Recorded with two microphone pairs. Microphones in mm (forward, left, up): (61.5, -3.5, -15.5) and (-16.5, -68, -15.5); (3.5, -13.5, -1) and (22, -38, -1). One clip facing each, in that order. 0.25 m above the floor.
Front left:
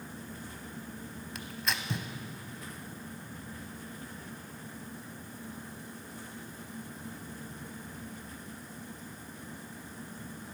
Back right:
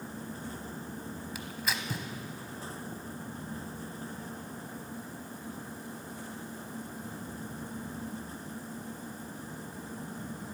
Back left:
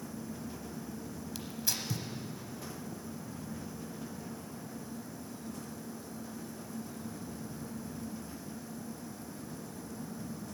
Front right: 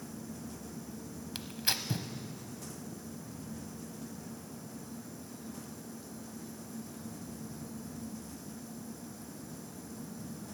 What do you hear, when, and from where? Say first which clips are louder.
1.4 s tearing paper: front left 1 dB, front right 4 dB; 55° right, 0.8 m